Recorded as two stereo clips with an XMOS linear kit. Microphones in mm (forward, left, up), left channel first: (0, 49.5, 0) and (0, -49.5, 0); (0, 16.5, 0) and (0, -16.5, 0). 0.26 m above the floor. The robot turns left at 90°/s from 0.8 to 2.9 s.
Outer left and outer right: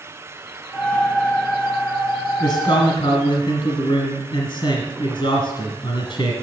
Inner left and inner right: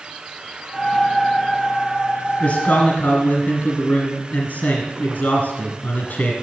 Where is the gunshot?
I don't hear a gunshot.